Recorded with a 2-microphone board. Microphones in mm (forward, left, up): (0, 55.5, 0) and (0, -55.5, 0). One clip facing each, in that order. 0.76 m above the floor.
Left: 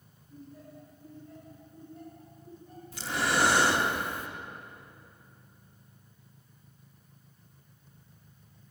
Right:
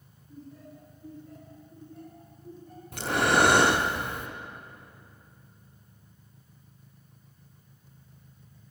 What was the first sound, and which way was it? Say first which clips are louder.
Laughter: right 2 dB; 75° right (ahead or behind).